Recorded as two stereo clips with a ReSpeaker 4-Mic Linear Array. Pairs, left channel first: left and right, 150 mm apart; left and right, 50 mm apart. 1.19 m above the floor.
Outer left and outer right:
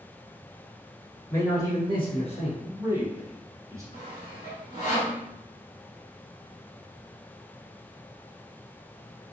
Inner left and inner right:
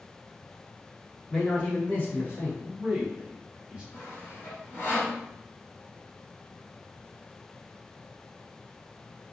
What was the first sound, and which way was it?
A man speaking, 20° left (ahead or behind).